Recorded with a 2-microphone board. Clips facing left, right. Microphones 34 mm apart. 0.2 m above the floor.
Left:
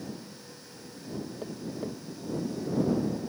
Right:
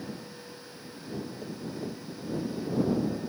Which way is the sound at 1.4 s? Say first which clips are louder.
Left 1 dB; 25° left (ahead or behind).